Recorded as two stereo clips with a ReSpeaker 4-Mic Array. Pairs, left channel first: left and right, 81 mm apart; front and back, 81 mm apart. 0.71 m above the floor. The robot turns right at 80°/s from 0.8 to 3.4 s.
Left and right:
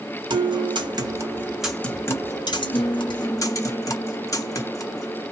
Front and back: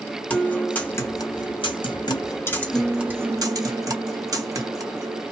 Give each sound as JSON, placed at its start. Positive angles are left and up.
{"t": 0.3, "sound": "a guitar", "azimuth_deg": -70, "distance_m": 0.7}